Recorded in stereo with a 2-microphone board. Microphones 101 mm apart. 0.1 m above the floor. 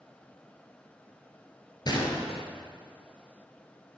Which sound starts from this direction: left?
A gunshot, at 1.9 s.